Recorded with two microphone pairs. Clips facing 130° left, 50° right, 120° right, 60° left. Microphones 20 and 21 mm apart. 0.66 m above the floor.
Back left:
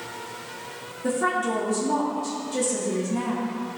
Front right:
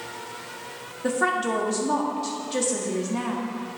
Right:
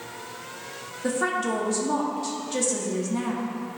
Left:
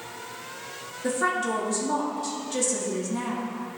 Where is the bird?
No bird in this recording.